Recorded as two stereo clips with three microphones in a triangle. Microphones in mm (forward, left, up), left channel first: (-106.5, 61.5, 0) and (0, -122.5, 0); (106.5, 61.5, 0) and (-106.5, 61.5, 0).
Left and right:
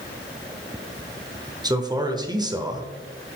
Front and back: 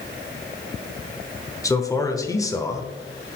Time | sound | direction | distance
1.6 | a man speaking | 35° right | 0.9 m